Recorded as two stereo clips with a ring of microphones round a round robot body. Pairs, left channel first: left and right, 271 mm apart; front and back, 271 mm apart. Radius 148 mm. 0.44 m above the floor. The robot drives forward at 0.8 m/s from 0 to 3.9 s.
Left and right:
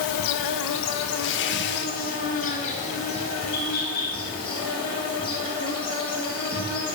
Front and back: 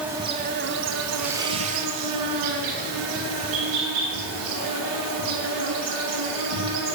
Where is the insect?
90° left, 0.9 m; by 7.0 s 165° left, 3.5 m.